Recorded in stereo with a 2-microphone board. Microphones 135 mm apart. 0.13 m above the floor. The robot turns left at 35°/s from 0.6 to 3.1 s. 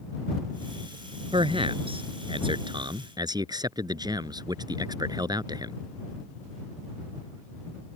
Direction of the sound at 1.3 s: 70° right.